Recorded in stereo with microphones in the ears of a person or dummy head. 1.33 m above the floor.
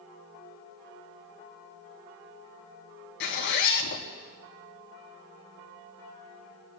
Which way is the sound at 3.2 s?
60° left (ahead or behind).